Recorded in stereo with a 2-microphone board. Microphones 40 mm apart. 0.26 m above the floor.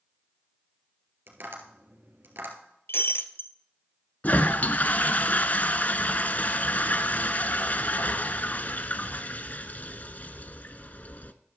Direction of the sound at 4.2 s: 45° left (ahead or behind).